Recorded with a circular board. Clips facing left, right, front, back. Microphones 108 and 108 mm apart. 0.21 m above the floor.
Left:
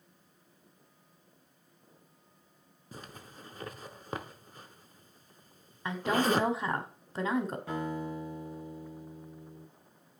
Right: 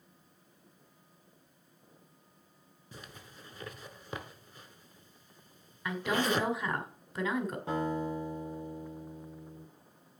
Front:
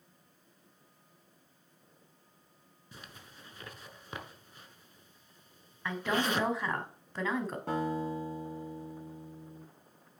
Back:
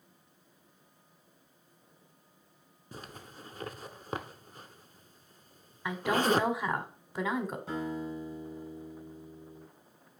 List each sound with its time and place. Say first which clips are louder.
2.9 s a zipper: left 3 dB, back 6 dB; 135° left, 0.7 m
5.8 s a woman speaking: left 3 dB, back 4 dB; 115° left, 1.4 m
7.7 s a guitar: right 3 dB, front 3 dB; 30° right, 5 m